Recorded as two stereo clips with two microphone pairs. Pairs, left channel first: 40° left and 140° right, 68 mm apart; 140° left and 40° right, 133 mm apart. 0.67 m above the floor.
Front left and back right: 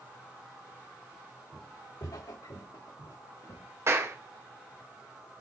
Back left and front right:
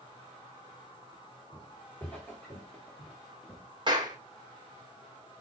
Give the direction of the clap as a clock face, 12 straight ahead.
3 o'clock.